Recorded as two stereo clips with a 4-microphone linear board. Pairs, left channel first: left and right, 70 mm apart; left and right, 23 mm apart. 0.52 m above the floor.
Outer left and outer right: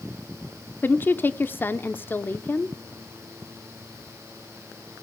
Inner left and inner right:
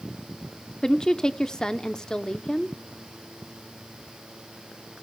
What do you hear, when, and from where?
0.8 s a woman speaking: 30° left (ahead or behind), 0.8 m